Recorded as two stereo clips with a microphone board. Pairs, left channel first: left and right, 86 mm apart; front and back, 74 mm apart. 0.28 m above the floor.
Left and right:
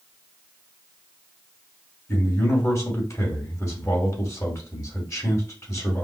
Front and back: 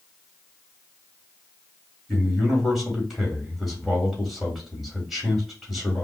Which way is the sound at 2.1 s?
90° left.